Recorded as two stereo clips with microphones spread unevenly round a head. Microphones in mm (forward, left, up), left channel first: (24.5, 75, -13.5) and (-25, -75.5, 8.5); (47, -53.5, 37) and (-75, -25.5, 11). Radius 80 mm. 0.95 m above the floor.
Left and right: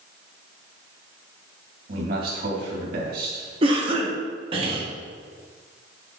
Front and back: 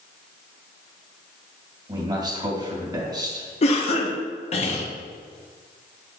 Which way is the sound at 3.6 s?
50° right.